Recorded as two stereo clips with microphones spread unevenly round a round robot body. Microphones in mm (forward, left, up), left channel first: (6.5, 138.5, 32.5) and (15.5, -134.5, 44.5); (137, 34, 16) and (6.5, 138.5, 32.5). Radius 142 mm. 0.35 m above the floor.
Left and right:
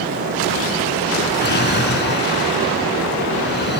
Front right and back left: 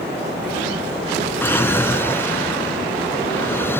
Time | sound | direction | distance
1.4 | a drawer | 40° left | ?